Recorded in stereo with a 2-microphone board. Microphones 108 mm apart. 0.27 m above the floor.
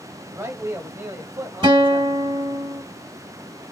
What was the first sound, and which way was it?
A man speaking, 25° right (ahead or behind).